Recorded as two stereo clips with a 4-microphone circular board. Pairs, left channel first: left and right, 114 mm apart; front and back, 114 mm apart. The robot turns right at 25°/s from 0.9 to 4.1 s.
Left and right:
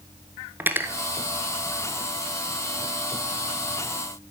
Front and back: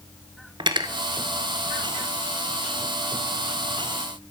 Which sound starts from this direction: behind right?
Cutlery clinking, at 0.6 s.